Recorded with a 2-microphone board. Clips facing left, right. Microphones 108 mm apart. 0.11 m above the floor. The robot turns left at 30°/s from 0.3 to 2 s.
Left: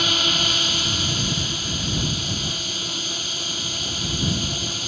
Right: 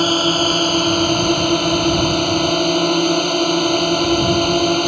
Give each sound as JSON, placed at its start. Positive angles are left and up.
{"t": 0.0, "sound": "a drone", "azimuth_deg": -45}